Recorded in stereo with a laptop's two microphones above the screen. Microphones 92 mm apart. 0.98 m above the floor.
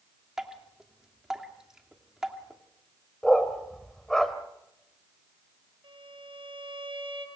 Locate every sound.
0.4 s dripping: 5° right (ahead or behind), 2.5 m
3.2 s a dog barking: 5° left (ahead or behind), 1.3 m
5.8 s a violin: 70° right (ahead or behind), 4.5 m